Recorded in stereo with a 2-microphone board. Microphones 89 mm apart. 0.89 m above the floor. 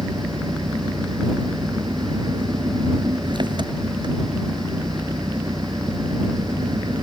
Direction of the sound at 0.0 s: 65° right (ahead or behind).